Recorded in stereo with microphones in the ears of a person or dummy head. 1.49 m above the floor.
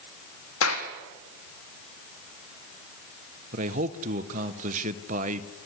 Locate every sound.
0.6 s a clap: 85° left, 2.5 m
3.5 s a man speaking: 40° right (ahead or behind), 1.1 m